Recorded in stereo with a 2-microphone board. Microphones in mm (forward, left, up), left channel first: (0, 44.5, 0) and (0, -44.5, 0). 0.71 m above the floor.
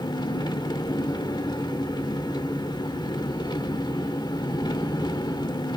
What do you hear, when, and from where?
0.0 s an engine running: 55° left (ahead or behind), 1.7 m